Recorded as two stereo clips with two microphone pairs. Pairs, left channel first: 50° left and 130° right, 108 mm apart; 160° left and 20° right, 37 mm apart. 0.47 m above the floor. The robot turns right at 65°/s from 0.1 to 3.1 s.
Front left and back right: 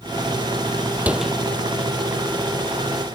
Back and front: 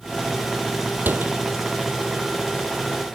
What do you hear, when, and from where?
1.0 s a door slam: 55° right; by 1.3 s 35° right